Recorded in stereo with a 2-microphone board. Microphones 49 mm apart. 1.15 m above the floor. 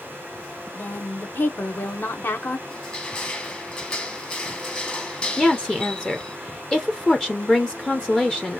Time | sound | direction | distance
0.7 | a woman speaking | 50° left (ahead or behind) | 0.9 m
2.7 | crushing | 25° left (ahead or behind) | 1.1 m
5.4 | a woman speaking | 15° left (ahead or behind) | 0.6 m